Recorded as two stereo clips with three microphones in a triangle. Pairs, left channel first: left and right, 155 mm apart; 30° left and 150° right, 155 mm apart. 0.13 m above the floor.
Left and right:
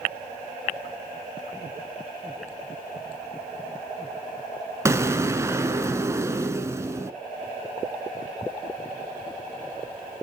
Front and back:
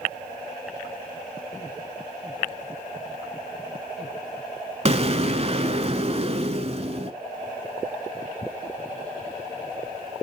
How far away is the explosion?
About 0.7 m.